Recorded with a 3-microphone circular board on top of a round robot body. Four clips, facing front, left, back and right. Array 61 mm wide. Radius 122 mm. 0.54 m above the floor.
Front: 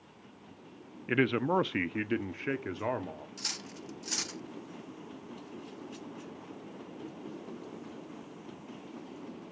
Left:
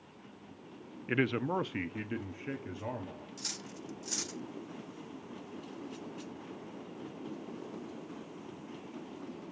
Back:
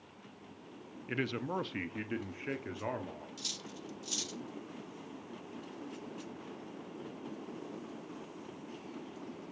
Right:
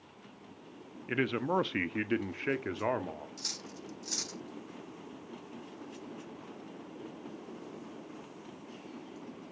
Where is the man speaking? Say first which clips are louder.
Even, front 8 dB; 15° left, 0.7 m; by 3.3 s 70° right, 1.4 m.